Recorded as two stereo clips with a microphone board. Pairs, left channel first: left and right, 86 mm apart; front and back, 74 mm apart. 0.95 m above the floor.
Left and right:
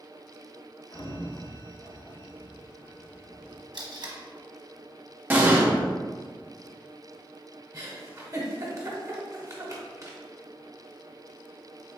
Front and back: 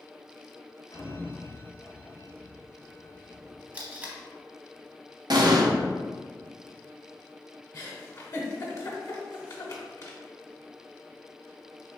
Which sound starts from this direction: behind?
An explosion, at 5.3 s.